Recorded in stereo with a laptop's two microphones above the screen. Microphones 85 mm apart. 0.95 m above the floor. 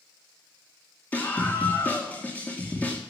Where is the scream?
20° left (ahead or behind), 2.5 m.